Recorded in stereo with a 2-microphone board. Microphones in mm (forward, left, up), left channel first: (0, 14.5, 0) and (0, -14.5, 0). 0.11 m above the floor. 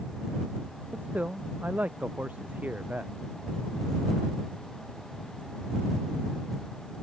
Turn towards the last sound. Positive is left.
turn(degrees=-80)